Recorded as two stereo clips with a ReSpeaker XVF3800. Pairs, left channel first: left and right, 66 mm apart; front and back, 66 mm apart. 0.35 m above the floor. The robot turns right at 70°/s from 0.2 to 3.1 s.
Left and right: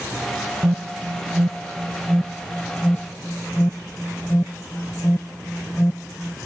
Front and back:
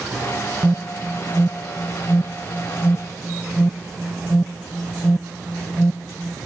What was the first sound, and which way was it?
An alarm, 120° right.